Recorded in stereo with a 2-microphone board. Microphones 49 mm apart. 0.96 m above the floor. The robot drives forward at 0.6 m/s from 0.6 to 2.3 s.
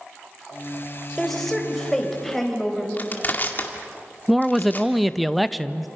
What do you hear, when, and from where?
1.2 s a woman speaking: 10° left (ahead or behind), 3.5 m; by 2.9 s 5° left (ahead or behind), 4.5 m
3.0 s crushing: 40° left (ahead or behind), 2 m
4.3 s a man speaking: centre (ahead or behind), 0.5 m